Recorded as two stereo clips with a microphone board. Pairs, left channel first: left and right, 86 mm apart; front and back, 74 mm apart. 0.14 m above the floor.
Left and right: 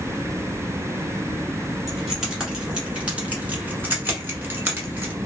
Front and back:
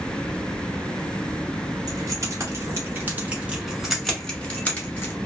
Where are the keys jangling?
175° right, 1.4 m; by 5.1 s 45° right, 1.2 m.